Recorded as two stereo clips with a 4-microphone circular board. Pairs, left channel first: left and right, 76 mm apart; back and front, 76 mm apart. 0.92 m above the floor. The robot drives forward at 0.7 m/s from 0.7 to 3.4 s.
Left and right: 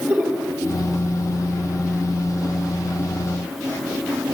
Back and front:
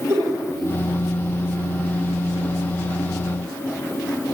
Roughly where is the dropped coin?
No dropped coin in this recording.